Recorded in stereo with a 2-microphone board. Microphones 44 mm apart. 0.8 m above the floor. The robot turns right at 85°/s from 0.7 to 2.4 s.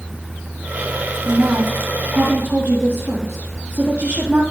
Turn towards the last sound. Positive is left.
turn(degrees=-60)